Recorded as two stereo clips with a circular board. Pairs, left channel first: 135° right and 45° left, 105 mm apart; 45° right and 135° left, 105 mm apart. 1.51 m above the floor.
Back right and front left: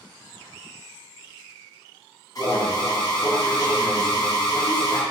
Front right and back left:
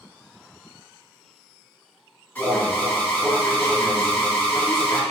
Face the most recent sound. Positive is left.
turn(degrees=-110)